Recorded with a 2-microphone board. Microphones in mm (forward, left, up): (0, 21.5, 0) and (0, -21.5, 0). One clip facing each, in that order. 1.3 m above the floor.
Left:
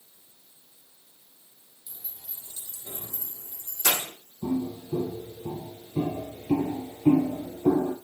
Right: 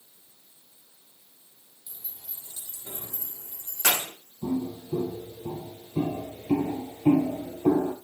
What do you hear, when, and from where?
1.9 s keys jangling: centre (ahead or behind), 2.0 m; by 4.1 s 75° right (ahead or behind), 2 m
4.4 s footsteps: centre (ahead or behind), 2 m; by 7.9 s 40° right (ahead or behind), 1.6 m